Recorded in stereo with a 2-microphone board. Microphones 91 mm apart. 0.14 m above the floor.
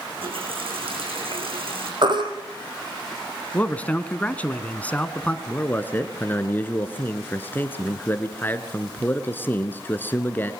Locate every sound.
0.2 s a running tap: 80° right, 6.5 m
2.0 s a baby crying: 55° right (ahead or behind), 4 m
3.5 s a man speaking: 15° left (ahead or behind), 1.3 m
5.5 s a man speaking: 20° left (ahead or behind), 1.7 m